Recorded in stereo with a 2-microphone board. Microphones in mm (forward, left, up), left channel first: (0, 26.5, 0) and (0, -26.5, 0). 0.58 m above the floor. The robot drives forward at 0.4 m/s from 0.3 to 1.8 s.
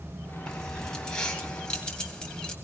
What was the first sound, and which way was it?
Keys jangling, 10° left (ahead or behind).